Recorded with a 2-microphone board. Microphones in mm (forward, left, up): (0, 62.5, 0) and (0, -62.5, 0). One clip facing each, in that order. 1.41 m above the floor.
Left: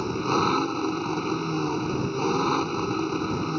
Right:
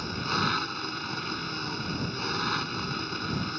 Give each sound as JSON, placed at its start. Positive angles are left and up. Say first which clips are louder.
{"t": 0.0, "sound": "an engine running", "louder": "left 7 dB", "side_deg": 40}